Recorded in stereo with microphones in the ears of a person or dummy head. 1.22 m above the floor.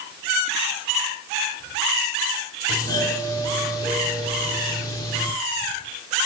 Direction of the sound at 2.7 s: 25° left (ahead or behind).